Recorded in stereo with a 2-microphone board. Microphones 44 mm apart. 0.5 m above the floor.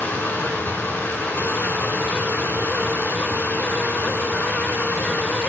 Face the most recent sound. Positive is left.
turn(degrees=65)  # may be behind; listen again after turning